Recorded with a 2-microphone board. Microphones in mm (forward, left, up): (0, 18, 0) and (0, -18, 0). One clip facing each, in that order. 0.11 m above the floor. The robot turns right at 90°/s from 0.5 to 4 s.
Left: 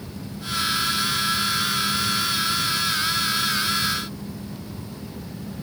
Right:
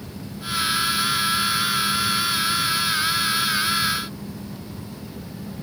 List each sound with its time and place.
Only background noise.